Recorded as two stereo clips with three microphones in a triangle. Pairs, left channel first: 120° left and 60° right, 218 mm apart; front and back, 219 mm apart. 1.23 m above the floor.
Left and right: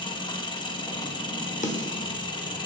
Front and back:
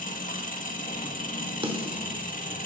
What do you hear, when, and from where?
0.0 s an engine running: 50° left, 1.2 m
1.6 s a snare drum: 135° left, 1.0 m